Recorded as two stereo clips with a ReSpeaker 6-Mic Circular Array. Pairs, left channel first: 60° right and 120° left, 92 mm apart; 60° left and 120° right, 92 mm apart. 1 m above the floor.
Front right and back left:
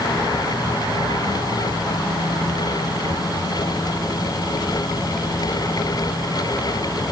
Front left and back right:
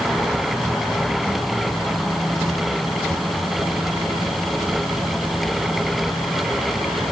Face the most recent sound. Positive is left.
No sound to turn to.